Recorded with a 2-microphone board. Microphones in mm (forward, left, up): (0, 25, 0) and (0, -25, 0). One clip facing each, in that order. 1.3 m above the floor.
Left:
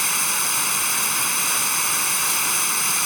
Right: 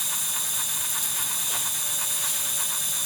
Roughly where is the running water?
Left.